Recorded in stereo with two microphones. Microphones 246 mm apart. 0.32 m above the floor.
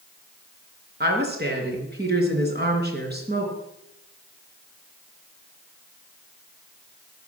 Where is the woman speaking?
40° right (ahead or behind), 3.5 m.